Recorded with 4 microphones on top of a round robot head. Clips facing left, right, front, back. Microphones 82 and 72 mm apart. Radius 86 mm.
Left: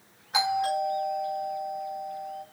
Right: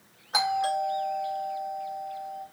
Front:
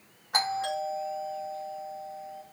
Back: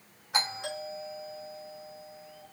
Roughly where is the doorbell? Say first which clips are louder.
Even, front 5 dB; ahead right.